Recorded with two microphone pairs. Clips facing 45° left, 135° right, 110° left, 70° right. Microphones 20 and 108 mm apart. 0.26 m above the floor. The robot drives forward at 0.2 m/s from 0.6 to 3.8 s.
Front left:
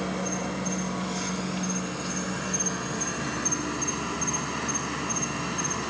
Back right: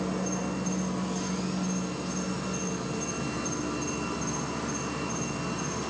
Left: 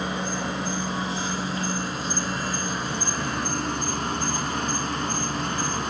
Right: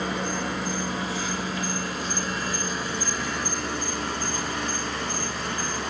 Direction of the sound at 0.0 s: 45° left.